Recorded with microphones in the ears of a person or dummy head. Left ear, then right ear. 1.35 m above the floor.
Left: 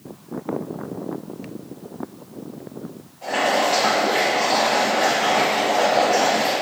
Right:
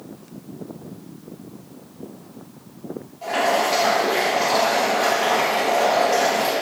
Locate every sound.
3.2 s boiling: 10° right (ahead or behind), 1.3 m